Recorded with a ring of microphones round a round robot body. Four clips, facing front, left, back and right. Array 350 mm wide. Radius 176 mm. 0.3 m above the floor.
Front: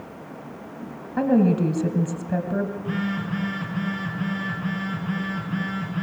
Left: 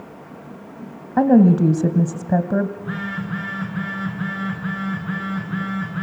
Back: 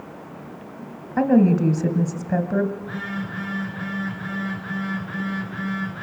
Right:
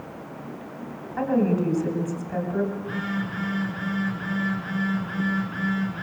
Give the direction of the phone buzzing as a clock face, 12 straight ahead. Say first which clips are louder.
Left 1 dB, front 3 dB; 10 o'clock.